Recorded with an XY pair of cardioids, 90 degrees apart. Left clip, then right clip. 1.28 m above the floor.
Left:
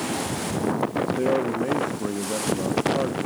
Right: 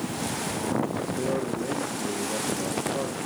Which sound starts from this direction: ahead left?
A man speaking, at 1.2 s.